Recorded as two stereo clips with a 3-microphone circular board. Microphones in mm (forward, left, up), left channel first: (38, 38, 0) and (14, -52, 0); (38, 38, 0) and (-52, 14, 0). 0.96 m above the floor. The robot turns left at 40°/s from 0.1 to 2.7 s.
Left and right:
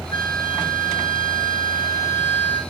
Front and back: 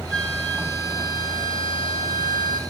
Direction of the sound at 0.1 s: 100° left.